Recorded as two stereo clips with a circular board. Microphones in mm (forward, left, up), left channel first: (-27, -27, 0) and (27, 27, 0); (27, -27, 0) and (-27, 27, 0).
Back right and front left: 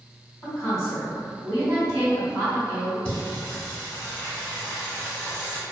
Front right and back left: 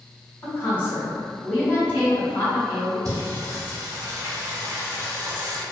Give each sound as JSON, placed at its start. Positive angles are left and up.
{"t": 0.4, "sound": "a woman speaking", "azimuth_deg": -105, "distance_m": 2.0}
{"t": 3.0, "sound": "singing", "azimuth_deg": 155, "distance_m": 0.9}